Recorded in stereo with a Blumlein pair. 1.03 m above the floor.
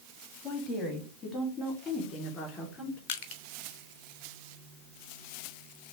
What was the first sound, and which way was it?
A woman speaking, 20° left.